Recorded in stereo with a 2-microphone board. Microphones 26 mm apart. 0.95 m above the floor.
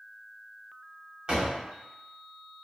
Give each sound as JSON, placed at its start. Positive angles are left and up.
{"t": 1.3, "sound": "a door slam", "side_deg": -40, "distance_m": 1.4}